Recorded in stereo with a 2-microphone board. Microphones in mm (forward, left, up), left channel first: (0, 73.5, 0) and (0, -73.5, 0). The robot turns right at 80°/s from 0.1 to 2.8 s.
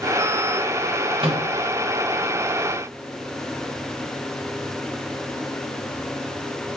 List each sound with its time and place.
1.2 s a microwave: 40° right (ahead or behind), 0.9 m; by 1.5 s 20° right (ahead or behind), 0.9 m